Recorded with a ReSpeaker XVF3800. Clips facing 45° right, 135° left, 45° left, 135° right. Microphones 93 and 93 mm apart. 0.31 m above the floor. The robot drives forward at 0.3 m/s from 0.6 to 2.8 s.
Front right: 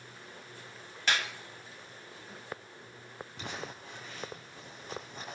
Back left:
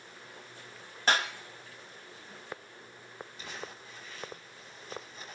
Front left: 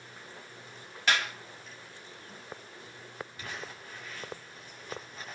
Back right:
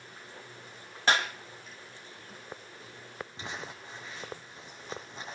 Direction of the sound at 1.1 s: 175° left.